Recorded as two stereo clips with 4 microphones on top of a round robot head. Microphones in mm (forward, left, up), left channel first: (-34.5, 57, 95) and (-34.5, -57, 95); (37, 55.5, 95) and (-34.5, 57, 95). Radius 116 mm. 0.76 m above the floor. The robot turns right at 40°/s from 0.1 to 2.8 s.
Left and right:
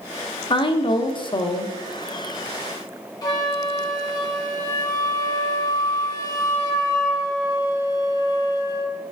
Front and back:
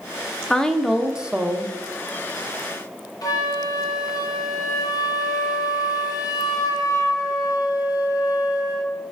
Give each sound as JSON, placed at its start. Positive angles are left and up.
{"t": 0.5, "sound": "a woman speaking", "azimuth_deg": 75, "distance_m": 0.6}
{"t": 3.2, "sound": "a flute", "azimuth_deg": 35, "distance_m": 1.0}